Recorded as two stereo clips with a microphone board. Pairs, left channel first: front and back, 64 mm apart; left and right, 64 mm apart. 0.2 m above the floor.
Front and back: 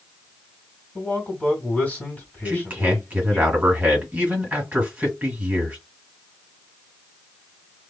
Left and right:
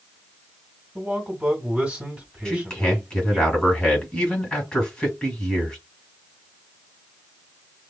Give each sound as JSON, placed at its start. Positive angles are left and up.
{"t": 0.9, "sound": "a man speaking", "azimuth_deg": -30, "distance_m": 1.9}
{"t": 2.5, "sound": "a man speaking", "azimuth_deg": 150, "distance_m": 1.4}